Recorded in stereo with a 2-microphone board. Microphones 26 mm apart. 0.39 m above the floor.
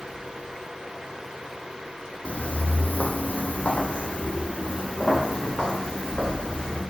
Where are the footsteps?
55° left (ahead or behind), 1.0 m; by 6.8 s 40° left (ahead or behind), 3 m.